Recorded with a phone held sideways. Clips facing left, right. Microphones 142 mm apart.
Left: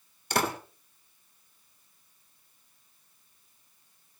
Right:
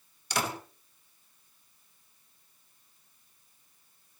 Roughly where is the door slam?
Left.